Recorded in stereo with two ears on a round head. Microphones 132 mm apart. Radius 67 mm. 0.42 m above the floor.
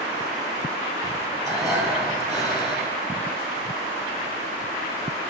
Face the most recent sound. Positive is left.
turn(degrees=-20)  # may be behind; listen again after turning